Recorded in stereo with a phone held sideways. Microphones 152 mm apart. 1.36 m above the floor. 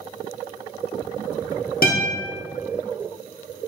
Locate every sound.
1.8 s a guitar: 80° left, 1.1 m